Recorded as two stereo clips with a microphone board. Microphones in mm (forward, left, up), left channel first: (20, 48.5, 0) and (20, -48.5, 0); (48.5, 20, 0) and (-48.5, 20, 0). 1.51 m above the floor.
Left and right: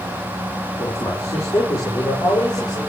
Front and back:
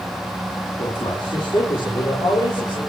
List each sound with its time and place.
0.8 s a man speaking: 35° left, 4.5 m; by 2.8 s 40° left, 6 m